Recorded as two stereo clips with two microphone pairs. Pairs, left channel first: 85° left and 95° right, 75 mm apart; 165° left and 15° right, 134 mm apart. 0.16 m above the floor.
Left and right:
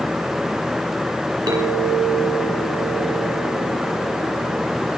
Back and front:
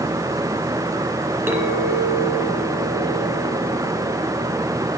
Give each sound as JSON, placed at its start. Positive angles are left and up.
{"t": 1.5, "sound": "a clink", "azimuth_deg": -85, "distance_m": 2.0}